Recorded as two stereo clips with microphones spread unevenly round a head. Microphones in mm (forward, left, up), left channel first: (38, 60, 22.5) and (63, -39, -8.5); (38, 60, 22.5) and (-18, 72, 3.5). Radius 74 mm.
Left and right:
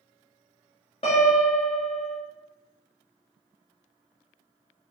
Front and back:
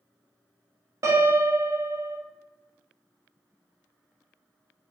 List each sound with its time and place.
1.0 s a piano: 165° left, 0.7 m